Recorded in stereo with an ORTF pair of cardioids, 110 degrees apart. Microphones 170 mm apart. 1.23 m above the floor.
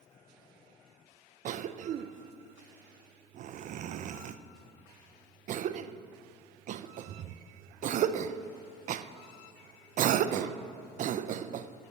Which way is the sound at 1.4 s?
45° right.